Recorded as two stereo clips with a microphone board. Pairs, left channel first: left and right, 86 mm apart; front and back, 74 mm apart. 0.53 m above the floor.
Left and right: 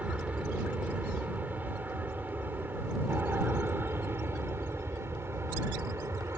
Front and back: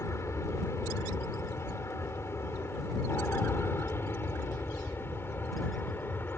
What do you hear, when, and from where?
0.0 s an aircraft: 25° right; by 6.4 s 45° right